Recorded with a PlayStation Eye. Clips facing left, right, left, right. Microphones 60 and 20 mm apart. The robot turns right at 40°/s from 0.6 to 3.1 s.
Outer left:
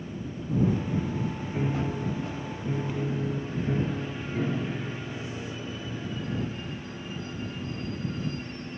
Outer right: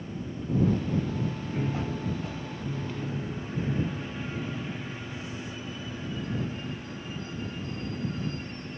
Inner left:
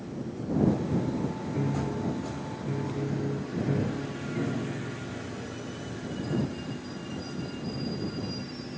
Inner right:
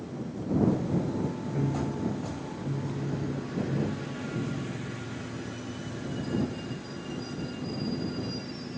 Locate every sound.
1.5 s a piano: 10° left; by 6.6 s 75° left